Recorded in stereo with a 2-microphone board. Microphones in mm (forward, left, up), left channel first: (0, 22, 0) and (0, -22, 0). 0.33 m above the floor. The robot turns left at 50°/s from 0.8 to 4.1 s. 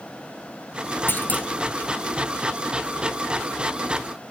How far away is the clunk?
About 1.1 m.